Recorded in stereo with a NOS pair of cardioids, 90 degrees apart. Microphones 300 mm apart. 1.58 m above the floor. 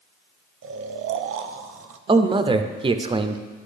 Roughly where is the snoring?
Ahead right.